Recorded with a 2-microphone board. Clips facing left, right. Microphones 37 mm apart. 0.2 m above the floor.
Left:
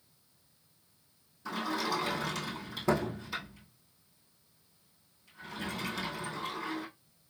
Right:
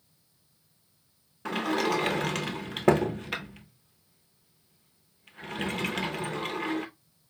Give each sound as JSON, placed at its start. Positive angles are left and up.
{"t": 1.4, "sound": "a sliding door", "side_deg": -80, "distance_m": 0.6}